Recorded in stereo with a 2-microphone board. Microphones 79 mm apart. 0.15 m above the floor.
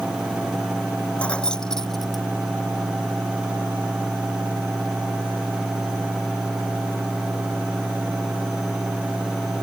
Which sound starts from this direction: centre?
Keys jangling, at 1.2 s.